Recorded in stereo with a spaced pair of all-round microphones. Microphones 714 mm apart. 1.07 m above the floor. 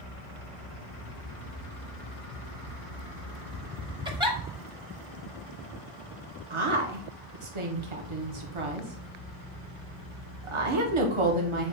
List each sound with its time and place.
4.0 s a giggle: 5° right (ahead or behind), 0.7 m
6.5 s a woman speaking: 45° right (ahead or behind), 0.8 m